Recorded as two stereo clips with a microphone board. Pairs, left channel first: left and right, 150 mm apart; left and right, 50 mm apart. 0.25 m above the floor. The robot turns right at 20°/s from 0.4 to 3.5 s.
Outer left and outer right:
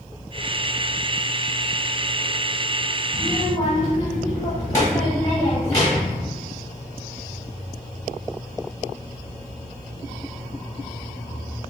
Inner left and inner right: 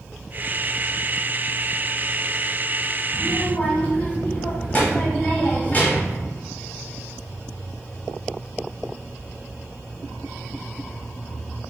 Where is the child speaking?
25° left (ahead or behind), 1.0 m.